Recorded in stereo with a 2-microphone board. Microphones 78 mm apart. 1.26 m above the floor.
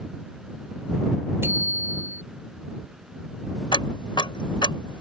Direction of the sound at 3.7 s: 85° left.